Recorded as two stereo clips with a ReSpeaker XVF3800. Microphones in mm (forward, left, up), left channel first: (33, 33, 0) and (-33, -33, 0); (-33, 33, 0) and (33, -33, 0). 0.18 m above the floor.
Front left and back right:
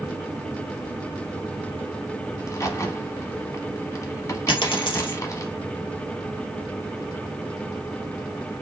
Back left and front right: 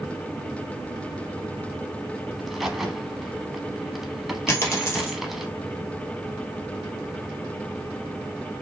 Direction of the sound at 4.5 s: 75° left.